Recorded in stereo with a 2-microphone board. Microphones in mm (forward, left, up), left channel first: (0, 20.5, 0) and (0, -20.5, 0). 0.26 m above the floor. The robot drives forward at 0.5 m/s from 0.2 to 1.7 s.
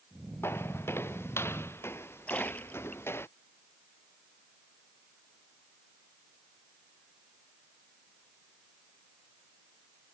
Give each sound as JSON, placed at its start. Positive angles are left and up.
{"t": 0.4, "sound": "footsteps", "side_deg": 85}
{"t": 2.3, "sound": "a splash", "side_deg": 35}